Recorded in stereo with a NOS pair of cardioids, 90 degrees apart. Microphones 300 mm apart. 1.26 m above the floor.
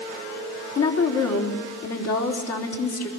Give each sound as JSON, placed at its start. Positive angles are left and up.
{"t": 0.8, "sound": "a woman speaking", "azimuth_deg": 55, "distance_m": 4.0}